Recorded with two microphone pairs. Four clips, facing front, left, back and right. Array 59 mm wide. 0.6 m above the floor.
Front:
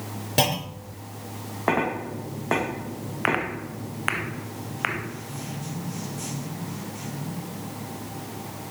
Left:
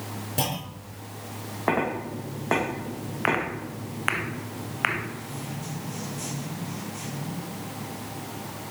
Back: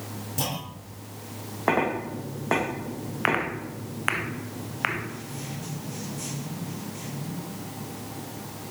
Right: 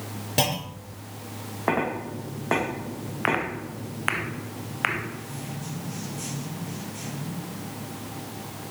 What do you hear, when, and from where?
0.4 s a clunk: 40° right, 5.5 m